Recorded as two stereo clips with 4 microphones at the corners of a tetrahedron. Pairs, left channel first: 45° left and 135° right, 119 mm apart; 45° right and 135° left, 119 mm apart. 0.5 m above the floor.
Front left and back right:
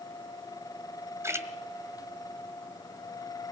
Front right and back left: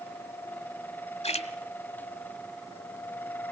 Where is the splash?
70° right, 1.6 m.